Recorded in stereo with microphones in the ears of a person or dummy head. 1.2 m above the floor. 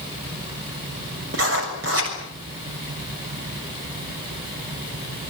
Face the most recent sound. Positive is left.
turn(degrees=-75)  # may be behind; listen again after turning